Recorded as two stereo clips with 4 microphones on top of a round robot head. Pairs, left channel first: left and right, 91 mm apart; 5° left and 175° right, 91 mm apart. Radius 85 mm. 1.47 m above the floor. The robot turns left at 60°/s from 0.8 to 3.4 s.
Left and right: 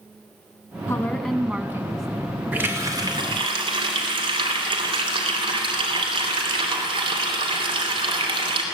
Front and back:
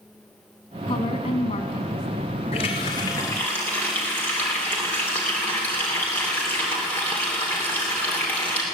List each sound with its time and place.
0.9 s a woman speaking: 30° left, 2 m; by 2.1 s 40° right, 2 m
2.5 s a running tap: 15° right, 3 m; by 8.6 s 70° right, 3 m